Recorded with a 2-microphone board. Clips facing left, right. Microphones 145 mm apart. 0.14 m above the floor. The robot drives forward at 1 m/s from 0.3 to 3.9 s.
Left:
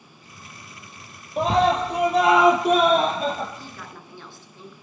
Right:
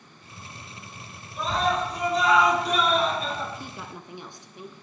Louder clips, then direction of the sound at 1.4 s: Left 6 dB; 70° left (ahead or behind).